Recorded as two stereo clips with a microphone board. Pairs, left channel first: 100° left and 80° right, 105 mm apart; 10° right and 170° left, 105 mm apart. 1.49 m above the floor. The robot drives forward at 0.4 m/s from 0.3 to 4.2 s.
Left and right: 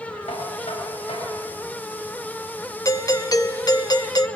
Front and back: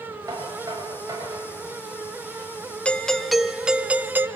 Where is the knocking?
115° left, 8.5 m.